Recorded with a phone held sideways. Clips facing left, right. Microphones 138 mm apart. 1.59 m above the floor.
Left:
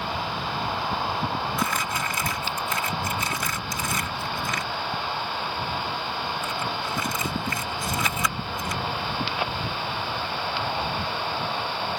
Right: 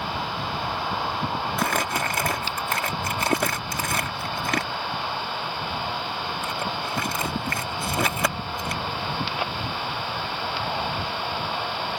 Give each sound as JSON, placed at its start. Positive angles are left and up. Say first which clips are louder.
{"t": 1.6, "sound": "crumpling", "louder": "right 2 dB", "side_deg": -60}